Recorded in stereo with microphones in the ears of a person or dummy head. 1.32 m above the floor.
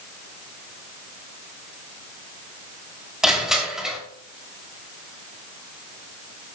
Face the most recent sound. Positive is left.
turn(degrees=-5)  # may be behind; listen again after turning